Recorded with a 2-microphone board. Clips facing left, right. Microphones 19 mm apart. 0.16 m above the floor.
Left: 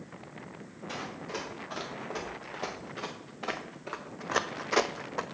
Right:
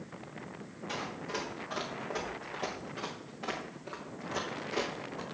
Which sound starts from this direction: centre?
Running footsteps, at 0.9 s.